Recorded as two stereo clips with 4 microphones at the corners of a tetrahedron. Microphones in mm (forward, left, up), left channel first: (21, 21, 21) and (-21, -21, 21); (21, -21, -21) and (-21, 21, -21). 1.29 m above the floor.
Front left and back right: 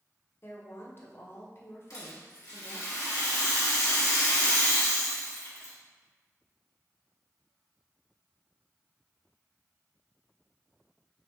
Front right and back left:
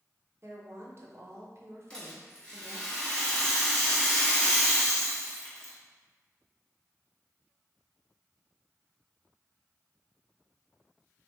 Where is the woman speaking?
95° left, 0.9 m.